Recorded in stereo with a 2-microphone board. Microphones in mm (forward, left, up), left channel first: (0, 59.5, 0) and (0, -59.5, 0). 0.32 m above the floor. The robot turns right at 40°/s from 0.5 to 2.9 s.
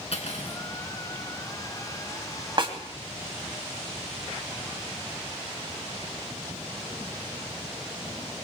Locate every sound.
0.1 s cutlery clinking: 65° left (ahead or behind), 2.5 m
2.6 s a snare drum: 45° right (ahead or behind), 2 m; by 2.8 s 50° right (ahead or behind), 2 m